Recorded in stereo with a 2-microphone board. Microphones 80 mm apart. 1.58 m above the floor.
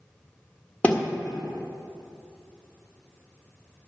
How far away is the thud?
About 1.4 m.